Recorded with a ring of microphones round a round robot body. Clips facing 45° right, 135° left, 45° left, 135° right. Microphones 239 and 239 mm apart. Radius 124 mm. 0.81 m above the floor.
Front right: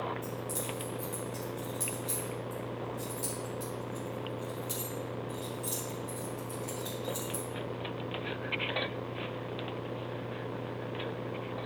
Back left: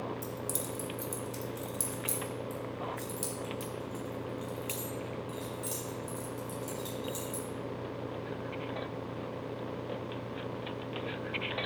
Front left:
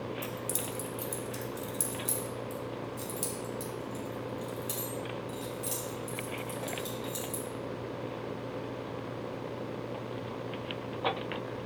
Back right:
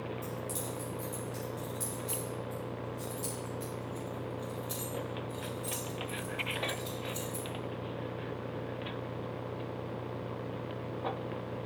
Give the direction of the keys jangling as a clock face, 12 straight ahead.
9 o'clock.